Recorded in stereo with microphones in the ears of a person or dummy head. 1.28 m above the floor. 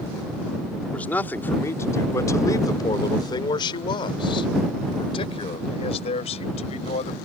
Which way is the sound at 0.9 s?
10° left (ahead or behind).